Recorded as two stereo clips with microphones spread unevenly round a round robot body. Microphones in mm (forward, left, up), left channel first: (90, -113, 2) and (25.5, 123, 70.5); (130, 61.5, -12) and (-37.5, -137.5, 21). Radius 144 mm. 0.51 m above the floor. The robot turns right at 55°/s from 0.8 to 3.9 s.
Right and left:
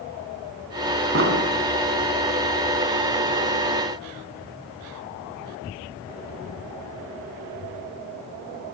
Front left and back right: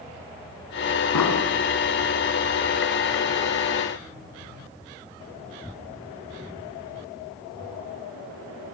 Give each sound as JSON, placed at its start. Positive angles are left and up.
{"t": 1.1, "sound": "an explosion", "azimuth_deg": 65, "distance_m": 5.5}